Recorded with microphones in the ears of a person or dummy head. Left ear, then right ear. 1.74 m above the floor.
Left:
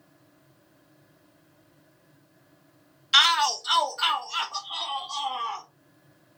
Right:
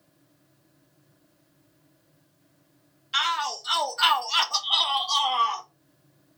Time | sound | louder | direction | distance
3.1 | a shout | left 6 dB | 30° left (ahead or behind) | 0.6 m